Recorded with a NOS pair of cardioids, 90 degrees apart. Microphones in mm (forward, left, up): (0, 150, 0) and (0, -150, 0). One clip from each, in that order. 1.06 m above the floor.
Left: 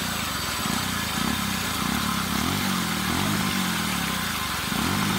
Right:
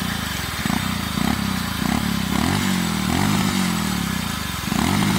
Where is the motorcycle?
50° right.